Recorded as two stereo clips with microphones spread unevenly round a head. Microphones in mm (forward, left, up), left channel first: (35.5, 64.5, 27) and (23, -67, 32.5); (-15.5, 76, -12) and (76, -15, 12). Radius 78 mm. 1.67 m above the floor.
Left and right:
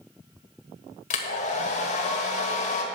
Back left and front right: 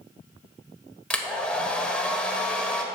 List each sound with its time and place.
1.1 s a hair dryer: 55° left, 1.5 m